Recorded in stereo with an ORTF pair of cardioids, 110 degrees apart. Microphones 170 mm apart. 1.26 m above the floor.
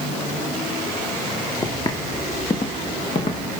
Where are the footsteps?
25° left, 4 m; by 3.5 s 45° left, 4.5 m.